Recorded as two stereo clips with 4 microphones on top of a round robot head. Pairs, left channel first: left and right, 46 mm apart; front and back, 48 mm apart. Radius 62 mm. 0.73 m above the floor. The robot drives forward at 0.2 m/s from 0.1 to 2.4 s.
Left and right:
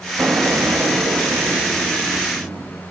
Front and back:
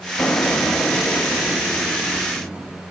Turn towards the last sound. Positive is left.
turn(degrees=-90)